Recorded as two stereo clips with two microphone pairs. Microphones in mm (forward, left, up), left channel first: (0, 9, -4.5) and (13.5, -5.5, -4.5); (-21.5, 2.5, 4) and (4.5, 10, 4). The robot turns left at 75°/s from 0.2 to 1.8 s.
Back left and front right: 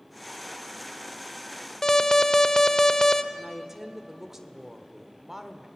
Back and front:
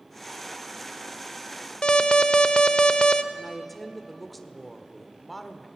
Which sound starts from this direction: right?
A woman speaking, at 3.3 s.